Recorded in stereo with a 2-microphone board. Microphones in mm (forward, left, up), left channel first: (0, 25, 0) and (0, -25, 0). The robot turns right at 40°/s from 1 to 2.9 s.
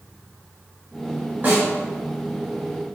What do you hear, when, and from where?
1.4 s a snare drum: 40° right (ahead or behind), 1.3 m; by 1.7 s 50° right (ahead or behind), 1.3 m